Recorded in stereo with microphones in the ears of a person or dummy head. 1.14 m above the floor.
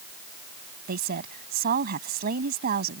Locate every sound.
0.9 s a woman speaking: 45° right (ahead or behind)